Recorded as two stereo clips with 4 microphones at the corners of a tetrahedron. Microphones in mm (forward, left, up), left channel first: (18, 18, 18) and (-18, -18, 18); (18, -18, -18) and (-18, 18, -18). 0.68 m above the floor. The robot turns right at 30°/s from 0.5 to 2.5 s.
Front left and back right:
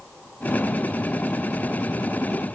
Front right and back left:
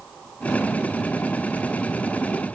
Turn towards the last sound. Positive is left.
No sound to turn to.